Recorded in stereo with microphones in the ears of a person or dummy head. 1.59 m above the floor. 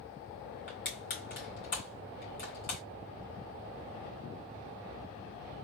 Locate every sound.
0.7 s crushing: 60° left (ahead or behind), 3 m